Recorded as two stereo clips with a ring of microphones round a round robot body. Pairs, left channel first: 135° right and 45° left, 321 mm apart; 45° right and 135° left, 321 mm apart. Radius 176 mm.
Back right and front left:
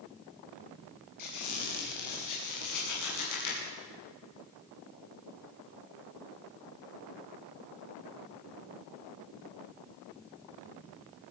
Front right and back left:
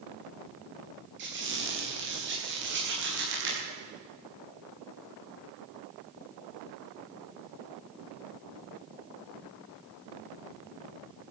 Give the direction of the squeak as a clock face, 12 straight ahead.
6 o'clock.